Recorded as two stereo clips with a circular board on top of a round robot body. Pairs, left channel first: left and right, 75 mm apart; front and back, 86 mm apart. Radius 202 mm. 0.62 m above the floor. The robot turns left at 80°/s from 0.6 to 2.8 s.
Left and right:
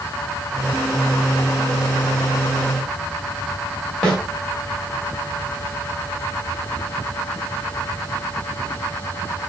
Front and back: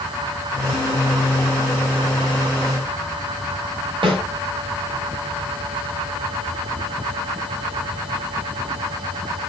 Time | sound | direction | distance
4.0 | a snare drum | 175° left | 1.4 m